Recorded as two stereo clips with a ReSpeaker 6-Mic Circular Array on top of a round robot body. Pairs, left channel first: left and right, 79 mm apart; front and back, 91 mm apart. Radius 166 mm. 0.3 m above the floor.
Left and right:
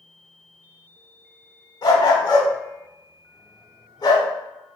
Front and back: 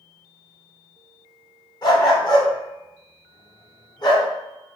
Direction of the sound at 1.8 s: 50° left.